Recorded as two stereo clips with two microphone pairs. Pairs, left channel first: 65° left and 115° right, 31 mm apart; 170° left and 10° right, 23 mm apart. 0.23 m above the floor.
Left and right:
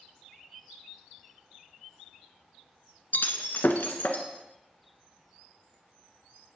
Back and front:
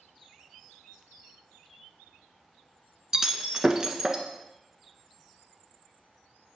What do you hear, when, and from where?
3.1 s breaking glass: 55° left, 1.2 m